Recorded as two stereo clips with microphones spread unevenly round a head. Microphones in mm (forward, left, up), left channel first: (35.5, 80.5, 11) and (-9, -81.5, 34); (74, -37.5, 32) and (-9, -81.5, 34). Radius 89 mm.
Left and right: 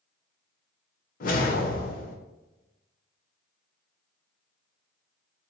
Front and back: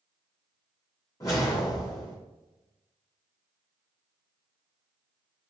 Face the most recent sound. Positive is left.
turn(degrees=75)